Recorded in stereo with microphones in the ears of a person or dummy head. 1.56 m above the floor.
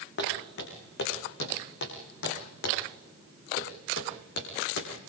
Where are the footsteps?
60° left (ahead or behind), 5 m; by 4.9 s 70° left (ahead or behind), 4.5 m.